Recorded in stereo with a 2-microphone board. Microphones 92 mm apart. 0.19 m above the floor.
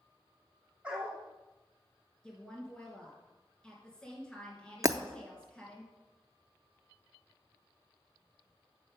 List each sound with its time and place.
0.8 s a dog barking: 15° right (ahead or behind), 3 m
2.2 s a woman speaking: 10° left (ahead or behind), 3 m
4.8 s breaking glass: 35° right (ahead or behind), 0.5 m